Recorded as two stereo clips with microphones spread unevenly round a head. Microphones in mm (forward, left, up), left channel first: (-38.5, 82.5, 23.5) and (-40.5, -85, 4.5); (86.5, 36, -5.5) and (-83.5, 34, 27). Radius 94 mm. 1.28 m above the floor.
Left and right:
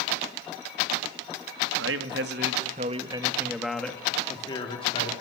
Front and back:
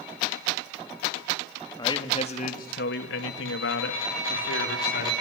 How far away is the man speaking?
About 2.5 m.